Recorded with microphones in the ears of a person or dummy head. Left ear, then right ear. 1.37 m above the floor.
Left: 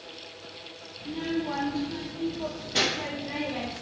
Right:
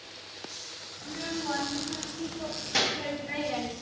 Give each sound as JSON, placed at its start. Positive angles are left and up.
{"t": 1.0, "sound": "a child speaking", "side_deg": -50, "distance_m": 2.5}